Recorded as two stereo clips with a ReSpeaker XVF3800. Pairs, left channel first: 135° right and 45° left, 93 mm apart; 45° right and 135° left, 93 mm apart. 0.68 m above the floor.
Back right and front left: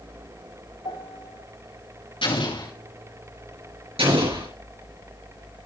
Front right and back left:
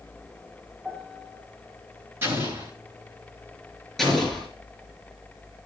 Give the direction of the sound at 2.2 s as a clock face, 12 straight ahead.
5 o'clock.